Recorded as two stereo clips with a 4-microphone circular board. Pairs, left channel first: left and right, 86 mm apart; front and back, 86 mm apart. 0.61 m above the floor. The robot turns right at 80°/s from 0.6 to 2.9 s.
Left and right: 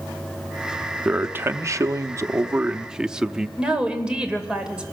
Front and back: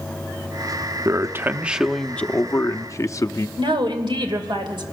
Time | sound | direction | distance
1.1 | a man speaking | 160° right | 0.7 m
3.6 | a woman speaking | 165° right | 2.5 m